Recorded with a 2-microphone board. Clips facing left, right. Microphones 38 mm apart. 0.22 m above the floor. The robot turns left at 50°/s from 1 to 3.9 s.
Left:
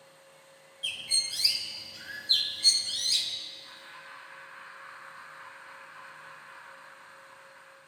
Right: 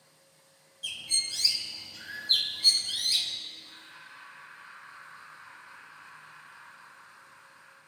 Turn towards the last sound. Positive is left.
turn(degrees=45)  # may be behind; listen again after turning